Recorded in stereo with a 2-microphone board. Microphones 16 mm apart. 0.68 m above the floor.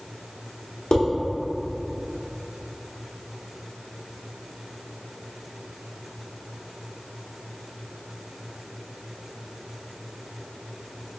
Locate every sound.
0.9 s dishes clattering: 70° left (ahead or behind), 1.1 m